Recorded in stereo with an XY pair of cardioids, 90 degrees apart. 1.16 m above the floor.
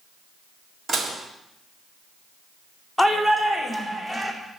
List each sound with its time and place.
0.9 s dishes clattering: 50° right, 1.8 m
3.0 s a shout: 5° right, 2.5 m